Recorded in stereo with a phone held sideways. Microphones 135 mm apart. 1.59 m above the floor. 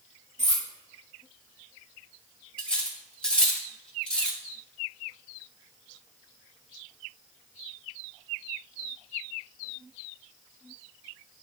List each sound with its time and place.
0.4 s cutlery clinking: 60° right (ahead or behind), 2.0 m
2.6 s cutlery clinking: 10° left (ahead or behind), 1.3 m